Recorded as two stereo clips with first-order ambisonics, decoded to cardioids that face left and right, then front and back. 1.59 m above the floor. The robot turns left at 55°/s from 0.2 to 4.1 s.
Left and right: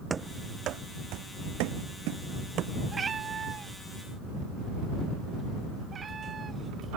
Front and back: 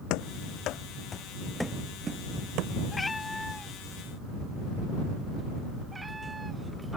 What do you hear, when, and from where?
0.1 s running footsteps: 20° right; by 2.7 s 145° right
2.9 s a cat meowing: 50° right; by 7.0 s 115° right